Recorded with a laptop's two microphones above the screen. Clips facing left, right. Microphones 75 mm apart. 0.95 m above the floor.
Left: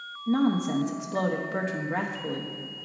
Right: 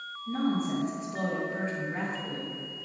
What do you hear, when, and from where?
0.3 s a woman speaking: 75° left (ahead or behind), 0.7 m